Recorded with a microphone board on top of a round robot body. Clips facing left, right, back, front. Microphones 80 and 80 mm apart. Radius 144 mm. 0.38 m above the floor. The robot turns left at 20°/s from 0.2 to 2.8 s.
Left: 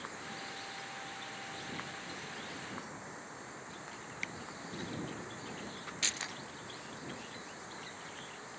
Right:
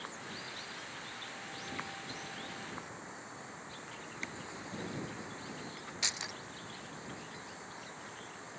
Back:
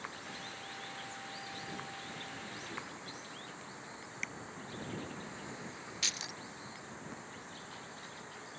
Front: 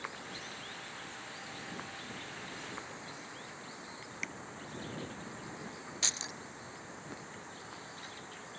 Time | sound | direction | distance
4.2 | tapping | 85° right | ?
6.0 | keys jangling | 30° right | ?